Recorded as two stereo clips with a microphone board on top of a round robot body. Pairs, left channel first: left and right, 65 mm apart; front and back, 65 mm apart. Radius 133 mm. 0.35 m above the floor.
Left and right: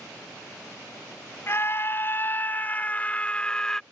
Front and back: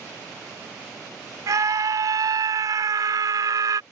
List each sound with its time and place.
1.5 s a scream: 145° left; by 3.8 s 170° left